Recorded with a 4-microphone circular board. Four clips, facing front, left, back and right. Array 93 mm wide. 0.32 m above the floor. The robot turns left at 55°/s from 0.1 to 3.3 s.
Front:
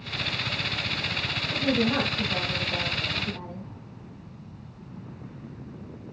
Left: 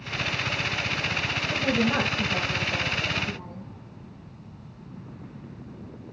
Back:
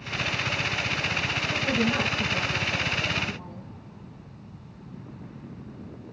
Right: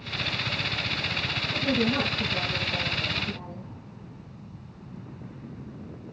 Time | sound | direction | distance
1.5 | a woman speaking | 95° left | 2 m